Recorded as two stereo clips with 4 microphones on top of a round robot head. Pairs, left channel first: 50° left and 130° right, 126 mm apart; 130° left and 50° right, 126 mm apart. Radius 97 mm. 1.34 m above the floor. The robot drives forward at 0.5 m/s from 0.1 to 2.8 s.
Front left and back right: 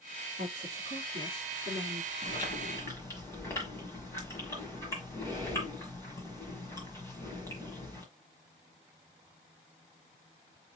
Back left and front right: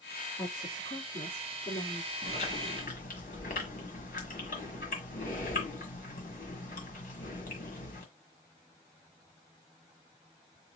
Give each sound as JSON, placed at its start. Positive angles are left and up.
{"t": 0.4, "sound": "a woman speaking", "azimuth_deg": 180, "distance_m": 2.5}
{"t": 2.2, "sound": "chewing", "azimuth_deg": 100, "distance_m": 1.4}